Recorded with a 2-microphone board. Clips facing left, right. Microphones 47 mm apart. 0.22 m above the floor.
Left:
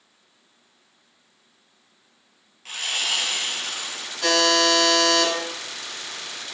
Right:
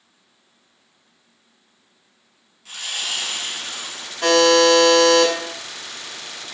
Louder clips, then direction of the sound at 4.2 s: Right 6 dB; 40° right (ahead or behind).